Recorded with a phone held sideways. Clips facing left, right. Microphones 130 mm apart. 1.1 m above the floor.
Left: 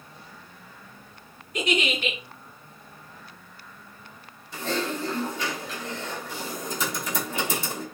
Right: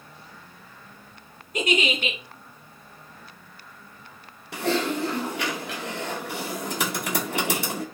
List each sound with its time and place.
1.5 s a giggle: 45° right (ahead or behind), 1.5 m
4.5 s typing on a keyboard: 70° right (ahead or behind), 0.6 m